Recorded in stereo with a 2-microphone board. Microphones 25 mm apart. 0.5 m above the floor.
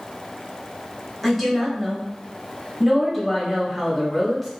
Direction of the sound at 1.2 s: 5° left (ahead or behind).